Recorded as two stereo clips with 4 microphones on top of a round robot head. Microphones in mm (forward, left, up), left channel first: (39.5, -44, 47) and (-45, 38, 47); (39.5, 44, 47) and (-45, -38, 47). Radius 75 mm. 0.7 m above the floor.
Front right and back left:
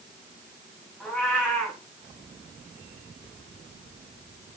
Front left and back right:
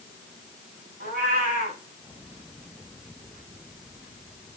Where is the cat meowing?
135° right, 6 m.